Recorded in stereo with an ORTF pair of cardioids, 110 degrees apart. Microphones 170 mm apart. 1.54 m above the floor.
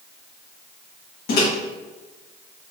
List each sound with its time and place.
1.3 s a microwave: 65° left, 1.5 m